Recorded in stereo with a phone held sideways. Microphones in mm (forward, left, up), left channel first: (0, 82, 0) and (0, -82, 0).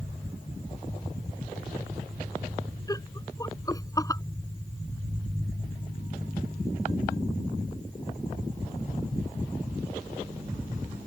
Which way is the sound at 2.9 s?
20° left (ahead or behind).